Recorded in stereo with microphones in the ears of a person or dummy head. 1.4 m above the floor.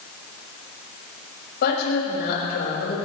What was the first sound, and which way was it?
A woman speaking, 60° left (ahead or behind).